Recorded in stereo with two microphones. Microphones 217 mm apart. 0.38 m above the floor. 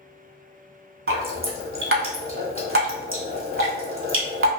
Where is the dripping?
85° right, 0.7 m.